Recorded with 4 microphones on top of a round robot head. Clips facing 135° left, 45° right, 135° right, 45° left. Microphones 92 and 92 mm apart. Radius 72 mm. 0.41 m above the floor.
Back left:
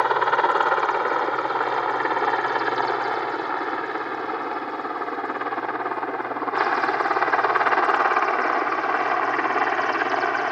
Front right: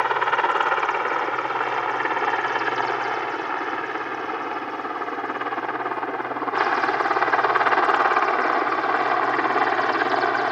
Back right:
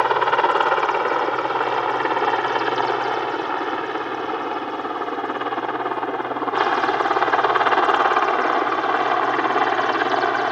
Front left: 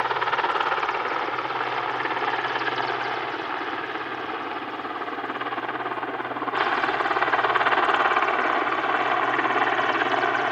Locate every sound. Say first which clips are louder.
0.0 s a helicopter: back left 1 dB, back right 6 dB; 160° right; by 10.5 s 115° right